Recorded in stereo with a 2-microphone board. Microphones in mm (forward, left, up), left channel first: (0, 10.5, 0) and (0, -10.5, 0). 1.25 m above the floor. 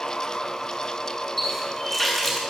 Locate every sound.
1.4 s a running tap: 15° left (ahead or behind), 8.5 m